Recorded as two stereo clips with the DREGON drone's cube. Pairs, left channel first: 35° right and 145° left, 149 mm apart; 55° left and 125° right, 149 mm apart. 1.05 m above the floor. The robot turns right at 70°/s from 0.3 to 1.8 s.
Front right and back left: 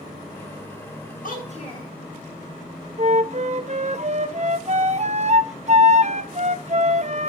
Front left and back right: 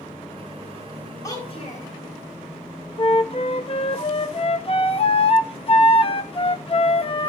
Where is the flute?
105° left, 0.7 m.